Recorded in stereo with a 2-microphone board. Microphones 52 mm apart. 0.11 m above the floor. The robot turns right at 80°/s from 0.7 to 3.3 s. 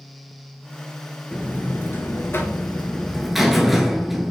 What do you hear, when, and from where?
1.3 s a buzzer: 25° left, 0.5 m; by 4.3 s 175° right, 0.5 m